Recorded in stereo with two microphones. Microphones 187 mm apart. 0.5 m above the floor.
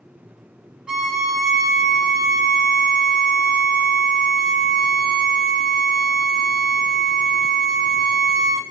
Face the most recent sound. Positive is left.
turn(degrees=-5)  # may be behind; listen again after turning